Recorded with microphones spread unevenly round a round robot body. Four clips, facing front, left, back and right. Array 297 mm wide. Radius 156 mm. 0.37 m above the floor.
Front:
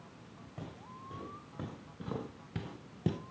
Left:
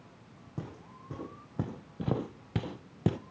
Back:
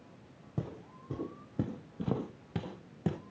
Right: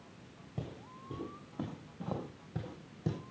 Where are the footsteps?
Straight behind, 1.0 m; by 3.2 s 70° left, 0.8 m.